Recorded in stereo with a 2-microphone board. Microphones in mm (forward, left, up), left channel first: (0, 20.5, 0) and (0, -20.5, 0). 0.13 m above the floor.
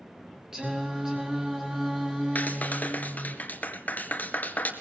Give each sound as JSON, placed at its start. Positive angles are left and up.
{"t": 0.5, "sound": "singing", "side_deg": -15, "distance_m": 3.0}
{"t": 2.4, "sound": "a clap", "side_deg": 45, "distance_m": 2.0}